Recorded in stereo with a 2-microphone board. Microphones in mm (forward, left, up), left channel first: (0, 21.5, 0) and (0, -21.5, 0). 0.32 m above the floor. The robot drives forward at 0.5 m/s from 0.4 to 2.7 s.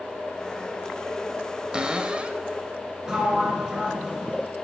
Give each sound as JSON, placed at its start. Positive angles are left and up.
{"t": 1.7, "sound": "a cupboard door", "side_deg": -20, "distance_m": 0.6}
{"t": 3.0, "sound": "a sliding door", "side_deg": -15, "distance_m": 1.9}